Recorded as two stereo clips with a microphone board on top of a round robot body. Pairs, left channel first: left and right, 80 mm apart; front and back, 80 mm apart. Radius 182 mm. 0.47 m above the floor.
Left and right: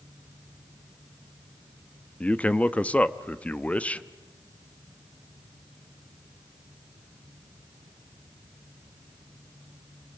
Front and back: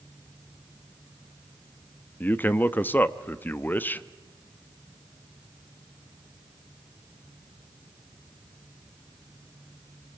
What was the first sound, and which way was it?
A man speaking, 35° left.